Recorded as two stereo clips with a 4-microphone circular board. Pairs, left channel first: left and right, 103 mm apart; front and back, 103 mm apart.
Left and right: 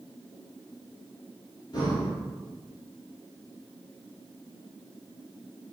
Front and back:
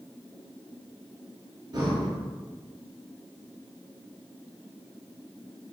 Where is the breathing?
135° left, 1.0 m.